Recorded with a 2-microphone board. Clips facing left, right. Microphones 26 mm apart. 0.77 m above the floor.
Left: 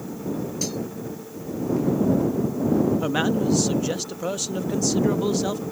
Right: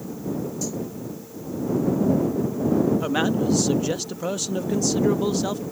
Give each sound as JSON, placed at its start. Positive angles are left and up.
{"t": 0.6, "sound": "cutlery clinking", "side_deg": 55}
{"t": 3.0, "sound": "a man speaking", "side_deg": -5}